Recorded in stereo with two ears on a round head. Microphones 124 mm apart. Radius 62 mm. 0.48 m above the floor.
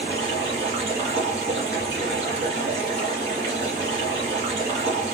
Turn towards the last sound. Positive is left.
turn(degrees=-50)  # may be behind; listen again after turning